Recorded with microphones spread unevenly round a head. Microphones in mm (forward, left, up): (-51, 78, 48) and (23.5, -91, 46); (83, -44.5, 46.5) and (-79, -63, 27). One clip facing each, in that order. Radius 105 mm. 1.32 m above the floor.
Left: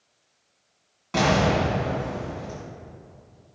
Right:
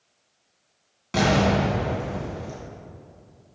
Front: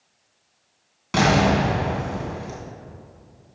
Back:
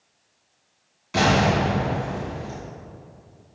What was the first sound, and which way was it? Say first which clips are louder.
An explosion: right 1 dB, front 1 dB; 10° left.